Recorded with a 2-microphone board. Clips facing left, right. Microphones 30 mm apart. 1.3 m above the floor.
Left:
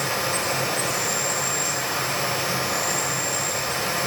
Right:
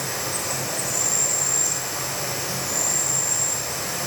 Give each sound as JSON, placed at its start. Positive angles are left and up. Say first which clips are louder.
{"t": 0.0, "sound": "an insect", "louder": "left 4 dB", "side_deg": 35, "distance_m": 1.6}